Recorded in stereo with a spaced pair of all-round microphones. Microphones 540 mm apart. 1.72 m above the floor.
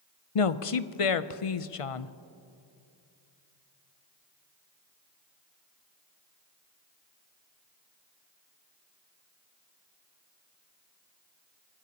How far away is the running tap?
I don't hear a running tap.